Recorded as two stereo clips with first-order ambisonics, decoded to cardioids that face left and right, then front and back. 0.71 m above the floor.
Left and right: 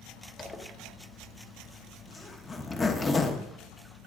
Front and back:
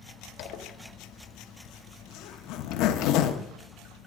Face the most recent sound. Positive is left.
turn(degrees=15)